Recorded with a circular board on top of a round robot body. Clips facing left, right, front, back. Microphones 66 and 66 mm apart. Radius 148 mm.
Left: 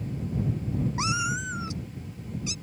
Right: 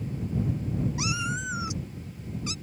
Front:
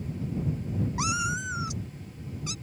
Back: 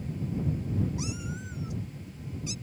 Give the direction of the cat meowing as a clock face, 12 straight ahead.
11 o'clock.